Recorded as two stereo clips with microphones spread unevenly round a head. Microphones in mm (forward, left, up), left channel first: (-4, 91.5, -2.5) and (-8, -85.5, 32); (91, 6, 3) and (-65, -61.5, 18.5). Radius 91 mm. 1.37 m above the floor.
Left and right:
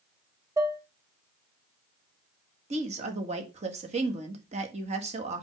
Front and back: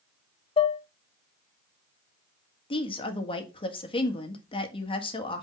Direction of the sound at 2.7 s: 35° right.